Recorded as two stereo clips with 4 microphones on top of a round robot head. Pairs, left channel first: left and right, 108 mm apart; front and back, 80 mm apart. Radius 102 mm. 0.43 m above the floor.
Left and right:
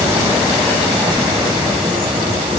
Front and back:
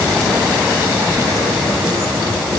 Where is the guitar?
No guitar in this recording.